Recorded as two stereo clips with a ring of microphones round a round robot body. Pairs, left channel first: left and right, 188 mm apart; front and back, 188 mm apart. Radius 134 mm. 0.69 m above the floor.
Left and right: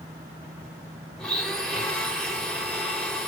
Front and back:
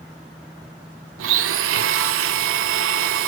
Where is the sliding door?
No sliding door in this recording.